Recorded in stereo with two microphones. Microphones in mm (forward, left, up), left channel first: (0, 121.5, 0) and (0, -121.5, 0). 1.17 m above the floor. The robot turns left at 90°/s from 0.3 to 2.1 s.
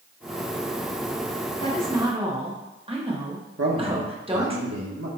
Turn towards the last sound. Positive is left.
turn(degrees=-70)  # may be behind; listen again after turning